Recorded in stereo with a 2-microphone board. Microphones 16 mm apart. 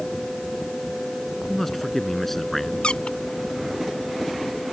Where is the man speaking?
20° left (ahead or behind).